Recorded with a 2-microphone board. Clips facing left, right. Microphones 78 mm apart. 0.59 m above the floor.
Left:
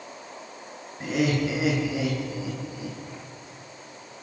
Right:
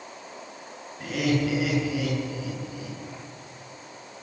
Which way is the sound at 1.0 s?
25° left (ahead or behind).